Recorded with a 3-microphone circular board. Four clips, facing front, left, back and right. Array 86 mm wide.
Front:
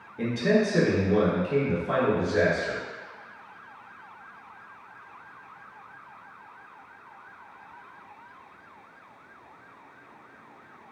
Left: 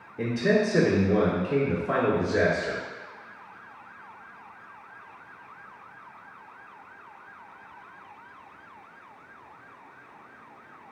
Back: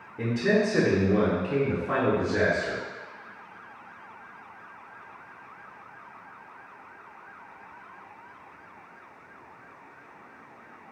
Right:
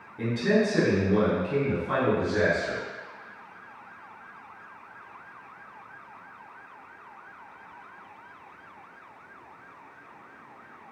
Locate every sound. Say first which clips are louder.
0.2 s a man speaking: left 1 dB, front 1 dB; 140° left, 1.2 m